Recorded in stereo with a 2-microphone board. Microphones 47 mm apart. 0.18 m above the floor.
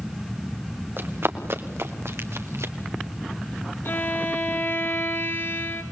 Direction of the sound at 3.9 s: 55° left (ahead or behind).